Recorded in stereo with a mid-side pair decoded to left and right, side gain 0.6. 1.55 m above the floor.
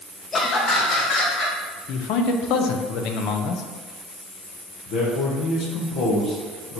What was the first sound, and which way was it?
Laughter, 35° left.